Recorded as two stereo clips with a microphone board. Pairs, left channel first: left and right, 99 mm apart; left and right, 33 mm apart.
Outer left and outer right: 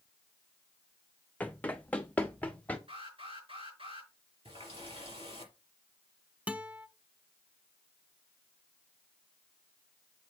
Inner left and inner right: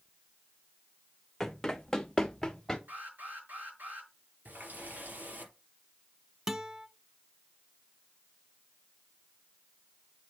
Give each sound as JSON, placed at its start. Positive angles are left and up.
{"t": 1.4, "sound": "running footsteps", "side_deg": 15, "distance_m": 0.7}
{"t": 2.9, "sound": "an alarm", "side_deg": -70, "distance_m": 6.5}
{"t": 4.5, "sound": "a running tap", "side_deg": -70, "distance_m": 3.5}
{"t": 6.5, "sound": "a guitar", "side_deg": -15, "distance_m": 0.7}